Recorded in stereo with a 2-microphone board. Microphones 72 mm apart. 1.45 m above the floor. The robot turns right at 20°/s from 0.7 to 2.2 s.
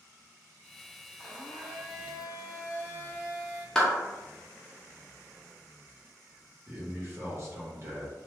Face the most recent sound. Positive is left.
turn(degrees=-40)  # may be behind; listen again after turning